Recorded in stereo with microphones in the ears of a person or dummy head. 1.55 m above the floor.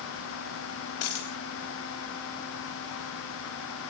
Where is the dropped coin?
65° left (ahead or behind), 1.8 m.